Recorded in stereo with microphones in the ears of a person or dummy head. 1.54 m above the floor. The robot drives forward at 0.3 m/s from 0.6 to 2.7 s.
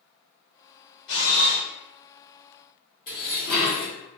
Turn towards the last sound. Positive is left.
turn(degrees=40)  # may be behind; listen again after turning